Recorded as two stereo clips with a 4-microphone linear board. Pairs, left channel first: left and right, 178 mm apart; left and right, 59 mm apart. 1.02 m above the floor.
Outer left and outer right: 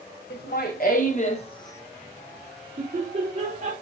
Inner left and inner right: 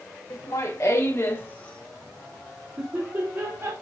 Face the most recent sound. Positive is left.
turn(degrees=-55)  # may be behind; listen again after turning